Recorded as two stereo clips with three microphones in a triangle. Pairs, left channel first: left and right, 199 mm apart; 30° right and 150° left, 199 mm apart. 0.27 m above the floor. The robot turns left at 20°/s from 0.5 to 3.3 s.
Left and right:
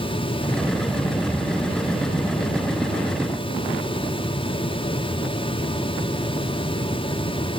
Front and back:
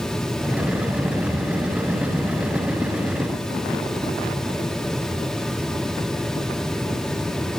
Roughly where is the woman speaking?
I don't hear a woman speaking.